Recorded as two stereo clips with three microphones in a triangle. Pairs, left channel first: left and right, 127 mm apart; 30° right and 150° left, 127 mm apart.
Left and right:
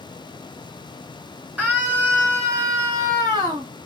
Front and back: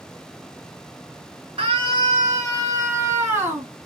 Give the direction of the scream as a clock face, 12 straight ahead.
6 o'clock.